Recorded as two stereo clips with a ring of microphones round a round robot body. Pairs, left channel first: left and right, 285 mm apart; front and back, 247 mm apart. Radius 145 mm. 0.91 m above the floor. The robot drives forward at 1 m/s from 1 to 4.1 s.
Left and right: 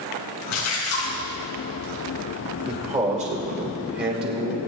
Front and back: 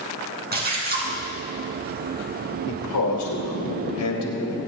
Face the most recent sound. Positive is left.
turn(degrees=-35)